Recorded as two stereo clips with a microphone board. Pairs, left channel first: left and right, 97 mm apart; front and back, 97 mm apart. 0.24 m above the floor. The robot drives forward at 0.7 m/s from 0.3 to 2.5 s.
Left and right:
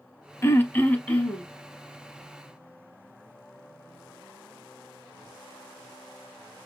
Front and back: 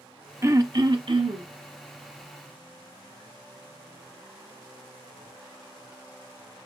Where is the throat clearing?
135° left, 0.5 m; by 1.5 s 165° left, 1.1 m.